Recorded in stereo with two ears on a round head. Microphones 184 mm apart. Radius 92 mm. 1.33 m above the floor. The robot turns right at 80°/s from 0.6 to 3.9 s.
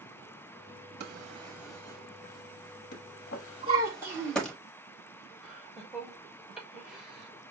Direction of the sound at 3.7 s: 30° right (ahead or behind).